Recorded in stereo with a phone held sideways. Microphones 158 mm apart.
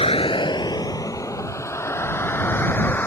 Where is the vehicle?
35° left (ahead or behind); by 3.1 s 10° left (ahead or behind).